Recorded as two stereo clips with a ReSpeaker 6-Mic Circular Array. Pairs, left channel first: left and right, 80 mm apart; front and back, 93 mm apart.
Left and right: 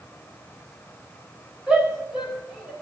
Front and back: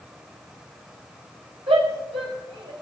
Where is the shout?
165° right, 4.5 m; by 2.7 s 170° right, 4.5 m.